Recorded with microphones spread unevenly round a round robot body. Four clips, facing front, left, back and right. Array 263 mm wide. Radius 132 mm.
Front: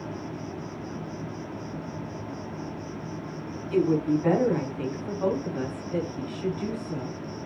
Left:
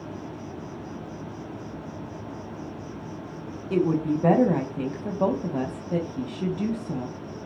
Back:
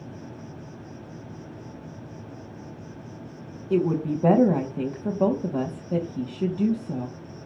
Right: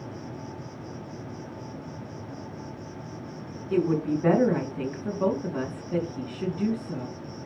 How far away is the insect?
About 2.5 m.